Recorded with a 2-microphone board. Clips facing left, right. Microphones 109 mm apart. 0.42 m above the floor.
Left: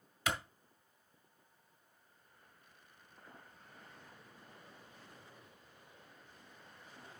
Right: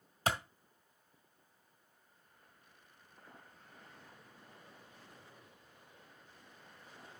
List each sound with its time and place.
0.3 s a clap: 40° right (ahead or behind), 2.0 m